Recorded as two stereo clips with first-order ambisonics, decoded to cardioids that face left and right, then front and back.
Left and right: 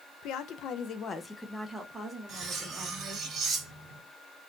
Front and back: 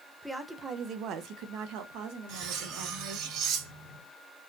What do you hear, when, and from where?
0.2 s a woman speaking: 90° left, 0.7 m; by 3.3 s 160° right, 1.7 m
2.3 s cutlery clinking: 150° right, 1.7 m